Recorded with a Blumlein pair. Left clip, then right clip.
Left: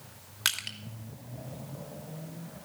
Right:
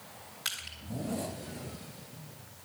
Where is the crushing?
30° left, 2.5 m.